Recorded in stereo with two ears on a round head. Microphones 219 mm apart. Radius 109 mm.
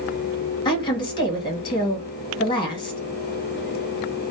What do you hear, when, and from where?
0.7 s a woman speaking: 20° left (ahead or behind), 1.1 m